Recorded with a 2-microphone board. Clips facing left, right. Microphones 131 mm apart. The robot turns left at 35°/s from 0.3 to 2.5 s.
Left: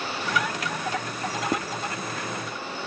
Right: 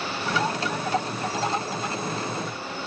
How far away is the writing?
About 0.6 m.